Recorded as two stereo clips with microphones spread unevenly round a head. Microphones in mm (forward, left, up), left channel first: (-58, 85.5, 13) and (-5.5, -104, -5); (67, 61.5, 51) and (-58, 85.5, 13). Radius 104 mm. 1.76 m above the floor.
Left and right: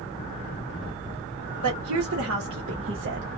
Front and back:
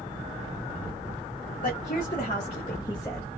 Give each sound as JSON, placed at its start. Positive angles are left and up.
{"t": 1.6, "sound": "a woman speaking", "azimuth_deg": -50, "distance_m": 1.5}